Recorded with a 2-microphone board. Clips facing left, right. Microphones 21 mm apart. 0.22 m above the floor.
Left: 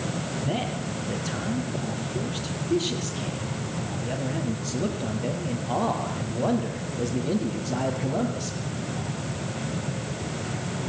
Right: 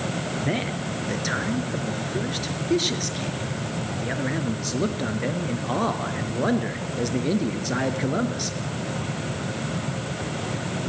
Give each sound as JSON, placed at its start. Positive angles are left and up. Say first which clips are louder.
{"t": 0.4, "sound": "a man speaking", "louder": "right 2 dB", "side_deg": -70, "distance_m": 3.5}